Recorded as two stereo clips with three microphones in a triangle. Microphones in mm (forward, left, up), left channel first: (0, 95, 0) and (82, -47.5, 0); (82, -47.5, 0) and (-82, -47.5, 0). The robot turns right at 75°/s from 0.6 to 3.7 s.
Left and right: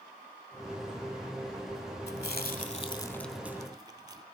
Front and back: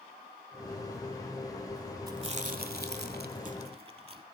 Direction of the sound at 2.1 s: 115° left.